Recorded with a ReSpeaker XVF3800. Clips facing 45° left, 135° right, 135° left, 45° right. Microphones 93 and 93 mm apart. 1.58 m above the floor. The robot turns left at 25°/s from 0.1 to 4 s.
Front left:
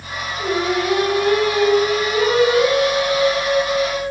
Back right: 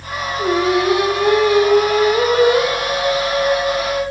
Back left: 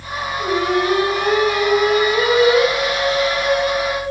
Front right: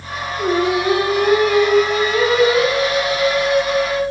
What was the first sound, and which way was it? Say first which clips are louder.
Singing: back right 4 dB, front right 1 dB; 110° right.